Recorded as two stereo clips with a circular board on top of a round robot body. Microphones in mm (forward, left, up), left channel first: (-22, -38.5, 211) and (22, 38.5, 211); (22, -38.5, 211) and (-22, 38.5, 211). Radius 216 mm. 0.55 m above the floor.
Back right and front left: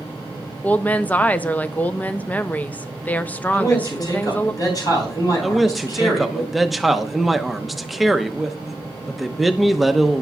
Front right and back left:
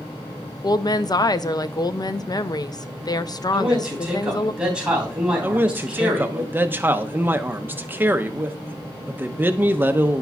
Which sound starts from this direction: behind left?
A man speaking, at 5.4 s.